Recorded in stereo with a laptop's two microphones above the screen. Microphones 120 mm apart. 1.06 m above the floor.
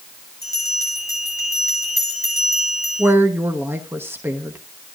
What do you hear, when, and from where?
0.4 s a bell: 25° left (ahead or behind), 4 m
3.0 s a woman speaking: 20° right (ahead or behind), 1.1 m